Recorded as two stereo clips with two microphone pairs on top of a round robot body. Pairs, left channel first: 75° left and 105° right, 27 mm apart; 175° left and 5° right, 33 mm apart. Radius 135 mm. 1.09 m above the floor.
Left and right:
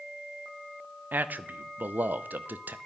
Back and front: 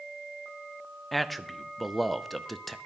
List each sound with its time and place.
1.1 s a man speaking: 100° right, 0.5 m